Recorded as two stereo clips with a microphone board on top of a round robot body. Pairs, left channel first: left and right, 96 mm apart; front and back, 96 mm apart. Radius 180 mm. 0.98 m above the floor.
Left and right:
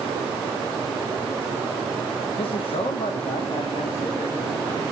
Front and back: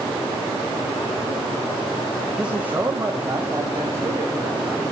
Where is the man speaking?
100° left, 1.8 m; by 4.8 s 125° left, 5 m.